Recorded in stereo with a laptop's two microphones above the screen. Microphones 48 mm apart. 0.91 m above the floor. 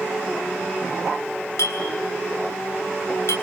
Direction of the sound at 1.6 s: 75° left (ahead or behind).